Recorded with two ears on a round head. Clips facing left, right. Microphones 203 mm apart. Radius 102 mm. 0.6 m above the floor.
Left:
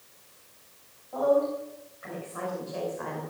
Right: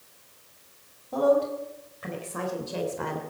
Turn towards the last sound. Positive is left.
turn(degrees=-55)  # may be behind; listen again after turning